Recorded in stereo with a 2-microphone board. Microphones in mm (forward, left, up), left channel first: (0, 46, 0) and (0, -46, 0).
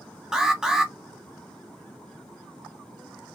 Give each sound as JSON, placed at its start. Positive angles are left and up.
{"t": 0.3, "sound": "an alarm", "side_deg": -5, "distance_m": 0.8}